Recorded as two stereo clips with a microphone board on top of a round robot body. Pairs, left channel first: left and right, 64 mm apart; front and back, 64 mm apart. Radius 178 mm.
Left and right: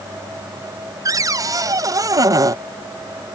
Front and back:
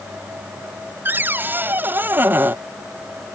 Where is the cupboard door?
120° right.